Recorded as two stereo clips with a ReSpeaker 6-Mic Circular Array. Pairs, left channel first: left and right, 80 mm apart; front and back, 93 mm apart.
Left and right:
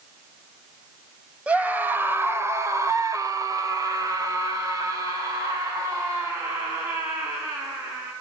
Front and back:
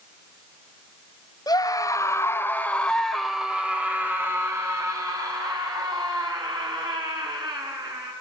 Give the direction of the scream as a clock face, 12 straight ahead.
1 o'clock.